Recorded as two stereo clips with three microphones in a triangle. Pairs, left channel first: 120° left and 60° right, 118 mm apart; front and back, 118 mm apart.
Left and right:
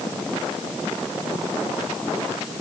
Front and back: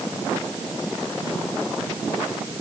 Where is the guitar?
No guitar in this recording.